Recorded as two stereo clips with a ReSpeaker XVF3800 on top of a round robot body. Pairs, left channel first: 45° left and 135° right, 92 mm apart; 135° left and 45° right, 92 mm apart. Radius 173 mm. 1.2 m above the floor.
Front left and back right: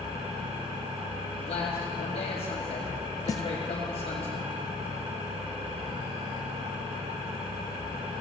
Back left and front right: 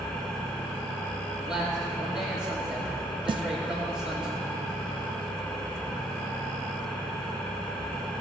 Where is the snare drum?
10° right, 0.5 m.